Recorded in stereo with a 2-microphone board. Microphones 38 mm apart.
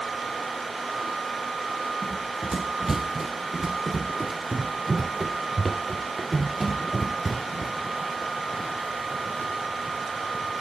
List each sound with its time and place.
2.0 s running footsteps: 15° right (ahead or behind); by 7.8 s 5° left (ahead or behind)